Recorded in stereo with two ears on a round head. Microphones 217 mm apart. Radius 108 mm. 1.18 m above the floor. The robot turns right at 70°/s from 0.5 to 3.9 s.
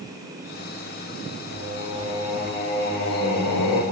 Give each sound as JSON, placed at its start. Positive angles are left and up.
{"t": 1.5, "sound": "singing", "azimuth_deg": -60, "distance_m": 0.6}